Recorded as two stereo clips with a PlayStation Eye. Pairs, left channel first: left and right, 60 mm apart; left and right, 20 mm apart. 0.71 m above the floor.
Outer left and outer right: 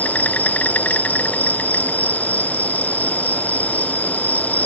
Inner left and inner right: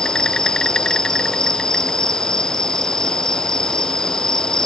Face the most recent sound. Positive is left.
turn(degrees=25)  # may be behind; listen again after turning